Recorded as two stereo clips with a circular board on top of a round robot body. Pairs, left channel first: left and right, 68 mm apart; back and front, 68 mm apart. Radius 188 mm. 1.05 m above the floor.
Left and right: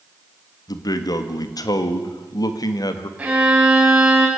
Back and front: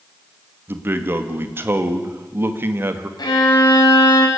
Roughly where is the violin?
Behind.